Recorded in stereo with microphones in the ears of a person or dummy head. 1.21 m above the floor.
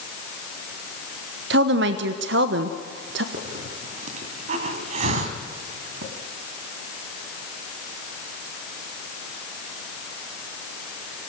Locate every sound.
1.5 s a woman speaking: 60° right (ahead or behind), 1.0 m
3.3 s a hiss: 40° right (ahead or behind), 1.7 m